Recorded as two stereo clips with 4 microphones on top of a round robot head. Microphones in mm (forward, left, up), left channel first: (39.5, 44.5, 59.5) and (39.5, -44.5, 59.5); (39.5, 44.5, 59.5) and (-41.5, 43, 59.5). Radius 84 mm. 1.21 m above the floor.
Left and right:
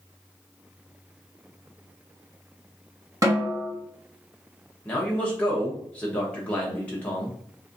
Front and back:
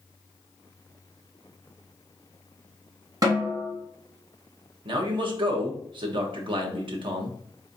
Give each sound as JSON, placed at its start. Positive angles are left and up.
{"t": 3.2, "sound": "a snare drum", "azimuth_deg": -140, "distance_m": 1.1}
{"t": 4.8, "sound": "a man speaking", "azimuth_deg": 165, "distance_m": 1.0}